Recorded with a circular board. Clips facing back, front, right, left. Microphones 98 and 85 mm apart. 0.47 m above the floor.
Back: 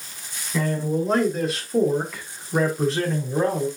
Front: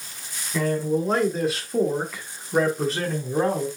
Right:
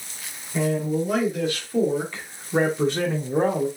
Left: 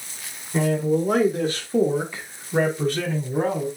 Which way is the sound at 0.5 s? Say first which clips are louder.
Front 1 dB, left 2 dB; 90° left.